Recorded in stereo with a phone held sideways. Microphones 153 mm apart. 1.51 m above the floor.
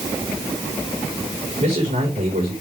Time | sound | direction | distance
1.6 | a man speaking | 60° right (ahead or behind) | 4 m